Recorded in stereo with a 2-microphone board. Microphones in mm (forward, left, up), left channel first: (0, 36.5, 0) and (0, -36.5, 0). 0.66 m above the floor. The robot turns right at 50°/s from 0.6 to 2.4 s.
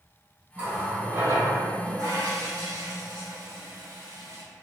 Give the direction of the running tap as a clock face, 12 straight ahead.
5 o'clock.